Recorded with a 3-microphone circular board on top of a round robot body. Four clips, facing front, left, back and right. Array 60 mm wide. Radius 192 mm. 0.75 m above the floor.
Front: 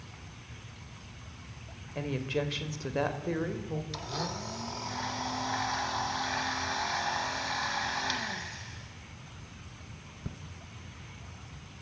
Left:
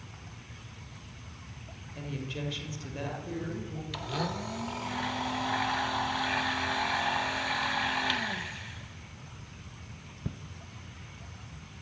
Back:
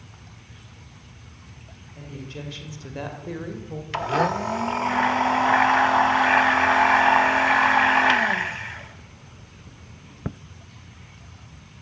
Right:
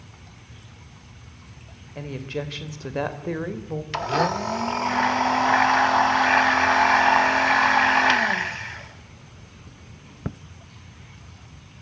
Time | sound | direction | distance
1.9 | a woman speaking | 40° right | 3.5 m
3.9 | a blender | 140° right | 0.8 m